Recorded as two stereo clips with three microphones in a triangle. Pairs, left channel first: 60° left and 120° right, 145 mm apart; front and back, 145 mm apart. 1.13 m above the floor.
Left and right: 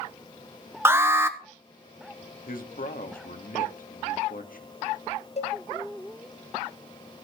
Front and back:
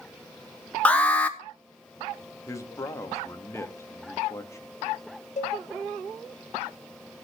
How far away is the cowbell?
About 1.0 m.